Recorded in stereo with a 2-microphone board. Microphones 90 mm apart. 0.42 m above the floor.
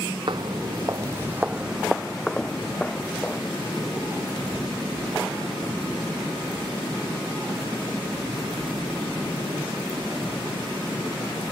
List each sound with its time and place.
0.3 s footsteps: 60° right (ahead or behind); by 3.4 s 15° left (ahead or behind)